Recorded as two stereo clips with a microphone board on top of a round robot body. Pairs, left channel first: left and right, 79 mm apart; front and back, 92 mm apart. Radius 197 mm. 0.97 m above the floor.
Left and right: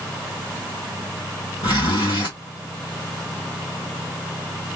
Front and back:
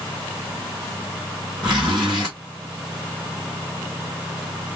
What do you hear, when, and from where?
1.6 s a zipper: 100° left, 0.7 m